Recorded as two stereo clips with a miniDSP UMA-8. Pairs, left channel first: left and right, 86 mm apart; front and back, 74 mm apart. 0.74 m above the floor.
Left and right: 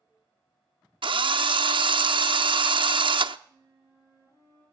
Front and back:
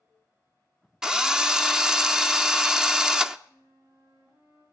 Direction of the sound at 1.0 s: 100° right.